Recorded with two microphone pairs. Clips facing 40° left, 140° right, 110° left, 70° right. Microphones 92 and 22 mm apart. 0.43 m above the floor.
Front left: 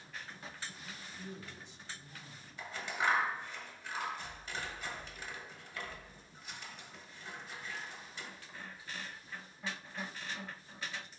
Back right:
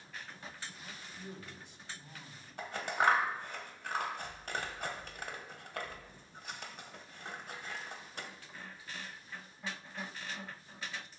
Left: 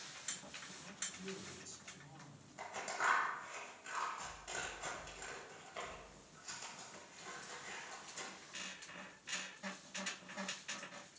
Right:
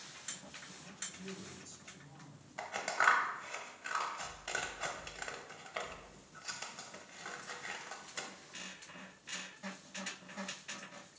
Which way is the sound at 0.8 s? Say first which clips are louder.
Even, even; 165° right.